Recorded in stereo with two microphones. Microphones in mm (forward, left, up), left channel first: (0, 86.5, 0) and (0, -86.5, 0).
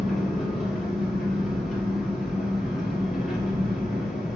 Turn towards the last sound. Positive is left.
turn(degrees=0)  # may be behind; listen again after turning